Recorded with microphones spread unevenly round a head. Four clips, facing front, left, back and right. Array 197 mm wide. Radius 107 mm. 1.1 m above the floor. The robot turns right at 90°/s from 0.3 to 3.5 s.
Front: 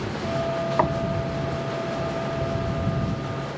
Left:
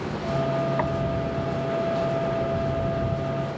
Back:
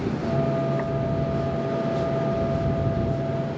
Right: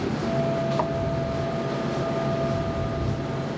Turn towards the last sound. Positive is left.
turn(degrees=-120)